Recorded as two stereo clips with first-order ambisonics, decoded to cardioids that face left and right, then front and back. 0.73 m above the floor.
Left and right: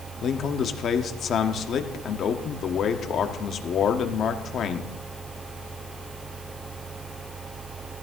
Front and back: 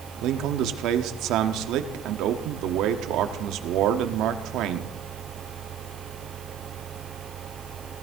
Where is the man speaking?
145° left, 1.1 m.